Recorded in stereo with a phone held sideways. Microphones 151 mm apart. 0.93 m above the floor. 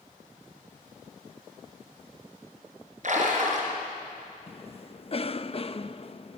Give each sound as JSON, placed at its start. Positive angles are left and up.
{"t": 3.0, "sound": "a splash", "side_deg": -55, "distance_m": 4.0}
{"t": 4.5, "sound": "a cough", "side_deg": 40, "distance_m": 0.6}